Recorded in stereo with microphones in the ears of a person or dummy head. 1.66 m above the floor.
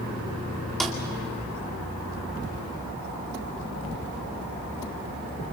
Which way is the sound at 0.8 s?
Centre (ahead or behind).